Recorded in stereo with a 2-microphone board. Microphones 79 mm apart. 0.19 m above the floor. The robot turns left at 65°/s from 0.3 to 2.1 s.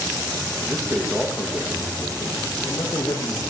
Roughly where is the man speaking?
Behind right.